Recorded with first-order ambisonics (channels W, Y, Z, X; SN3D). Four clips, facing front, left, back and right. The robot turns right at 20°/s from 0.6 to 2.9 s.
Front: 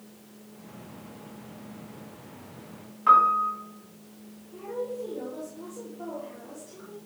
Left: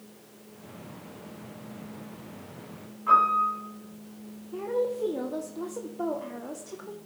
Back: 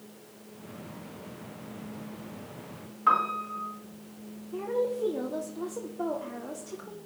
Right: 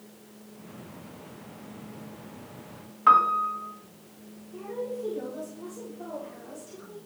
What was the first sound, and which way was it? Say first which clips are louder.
A piano: right 1 dB, front 6 dB; 90° right.